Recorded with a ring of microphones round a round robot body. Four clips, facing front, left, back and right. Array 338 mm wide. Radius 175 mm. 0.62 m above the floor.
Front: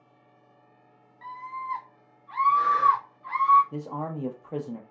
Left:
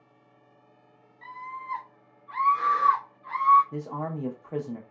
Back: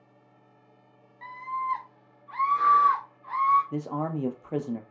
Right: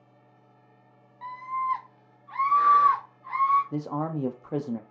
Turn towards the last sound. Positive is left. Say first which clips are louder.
# right 3 dB, back 3 dB
turn(degrees=-125)